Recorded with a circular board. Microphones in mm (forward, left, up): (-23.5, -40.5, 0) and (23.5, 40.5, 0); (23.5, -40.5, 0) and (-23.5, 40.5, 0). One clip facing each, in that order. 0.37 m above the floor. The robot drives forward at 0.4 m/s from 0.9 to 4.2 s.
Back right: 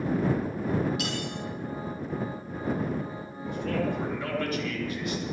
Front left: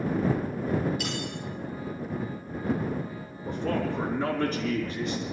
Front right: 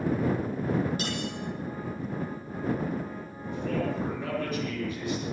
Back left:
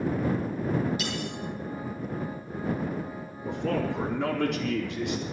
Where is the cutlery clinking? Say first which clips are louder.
Back right 1 dB, even; 105° right, 8.5 m.